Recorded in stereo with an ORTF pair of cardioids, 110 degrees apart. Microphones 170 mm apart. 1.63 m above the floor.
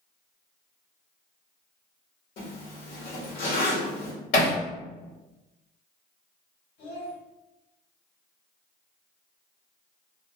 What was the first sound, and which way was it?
A zipper, 70° left.